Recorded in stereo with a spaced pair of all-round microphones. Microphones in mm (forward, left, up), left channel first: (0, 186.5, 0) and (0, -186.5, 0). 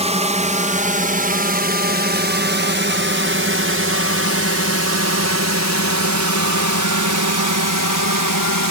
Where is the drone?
15° right (ahead or behind); by 8.7 s 60° right (ahead or behind).